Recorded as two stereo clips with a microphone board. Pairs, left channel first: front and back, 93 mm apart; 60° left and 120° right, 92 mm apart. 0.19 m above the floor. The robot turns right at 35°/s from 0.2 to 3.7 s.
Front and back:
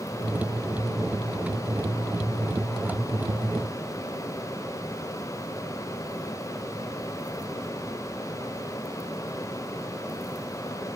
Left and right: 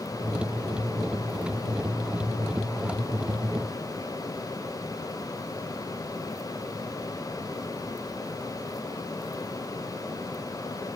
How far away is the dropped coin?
No dropped coin in this recording.